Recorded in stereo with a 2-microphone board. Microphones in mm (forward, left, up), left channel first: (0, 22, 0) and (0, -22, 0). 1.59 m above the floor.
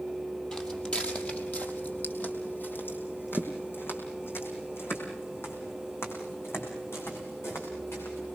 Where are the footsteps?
20° left (ahead or behind), 3 m; by 8.3 s 75° left (ahead or behind), 8 m.